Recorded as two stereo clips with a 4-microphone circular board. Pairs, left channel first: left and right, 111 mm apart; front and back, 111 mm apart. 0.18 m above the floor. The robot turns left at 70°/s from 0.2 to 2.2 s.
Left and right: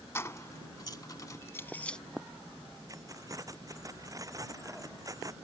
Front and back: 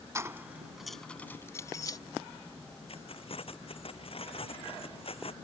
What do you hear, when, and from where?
0.1 s keys jangling: 135° left; by 2.0 s 10° left
2.9 s keys jangling: 35° right